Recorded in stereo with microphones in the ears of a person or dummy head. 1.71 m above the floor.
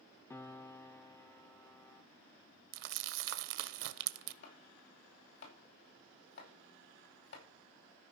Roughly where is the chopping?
Left.